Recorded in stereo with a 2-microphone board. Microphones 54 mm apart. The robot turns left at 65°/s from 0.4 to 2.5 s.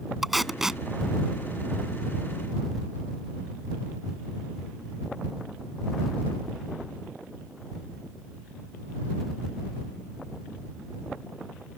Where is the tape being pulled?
Centre (ahead or behind); by 0.8 s 10° right (ahead or behind).